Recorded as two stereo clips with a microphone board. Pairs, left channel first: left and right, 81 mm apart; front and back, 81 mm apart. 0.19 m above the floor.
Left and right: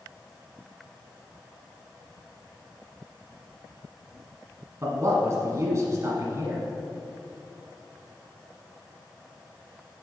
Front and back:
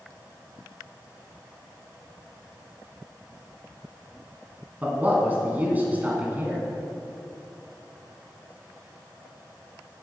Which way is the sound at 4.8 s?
120° right.